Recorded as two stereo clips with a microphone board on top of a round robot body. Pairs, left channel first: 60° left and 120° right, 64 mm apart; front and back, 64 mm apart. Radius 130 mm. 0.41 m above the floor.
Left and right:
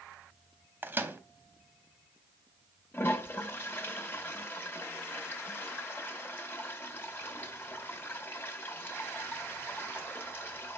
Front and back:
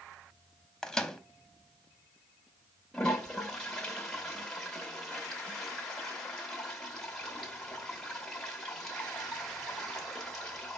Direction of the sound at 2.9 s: 75° left.